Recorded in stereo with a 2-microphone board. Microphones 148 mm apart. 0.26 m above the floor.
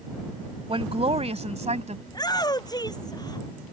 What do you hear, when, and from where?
0.7 s a woman speaking: 40° right (ahead or behind); by 2.0 s 50° right (ahead or behind)
2.1 s a shout: 25° left (ahead or behind)